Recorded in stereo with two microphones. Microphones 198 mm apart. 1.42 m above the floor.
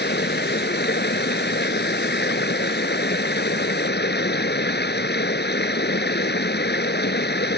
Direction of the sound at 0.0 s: 60° left (ahead or behind).